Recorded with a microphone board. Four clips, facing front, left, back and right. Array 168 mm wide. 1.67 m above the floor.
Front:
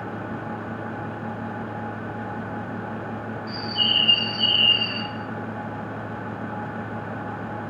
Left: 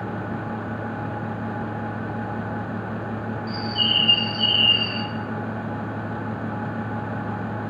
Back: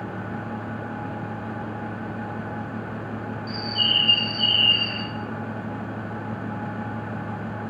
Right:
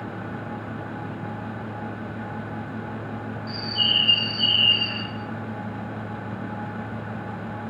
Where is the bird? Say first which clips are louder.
Left 2 dB, even; 65° right, 1.1 m.